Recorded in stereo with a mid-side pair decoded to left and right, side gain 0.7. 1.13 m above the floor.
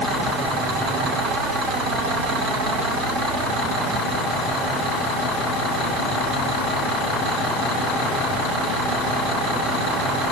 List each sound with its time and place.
Only background noise.